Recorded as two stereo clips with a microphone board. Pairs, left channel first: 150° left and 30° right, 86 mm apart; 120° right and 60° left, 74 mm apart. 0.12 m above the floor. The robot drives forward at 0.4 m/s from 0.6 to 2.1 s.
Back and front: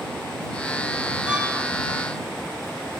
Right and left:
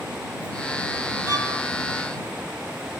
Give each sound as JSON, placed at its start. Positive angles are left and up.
{"t": 1.3, "sound": "a violin", "azimuth_deg": -110, "distance_m": 0.9}